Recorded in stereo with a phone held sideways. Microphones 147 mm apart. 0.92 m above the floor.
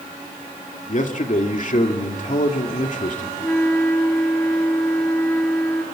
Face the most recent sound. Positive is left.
turn(degrees=10)  # may be behind; listen again after turning